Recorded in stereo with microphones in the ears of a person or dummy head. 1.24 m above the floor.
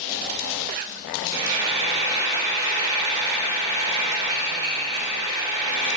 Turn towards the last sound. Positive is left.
turn(degrees=-25)  # may be behind; listen again after turning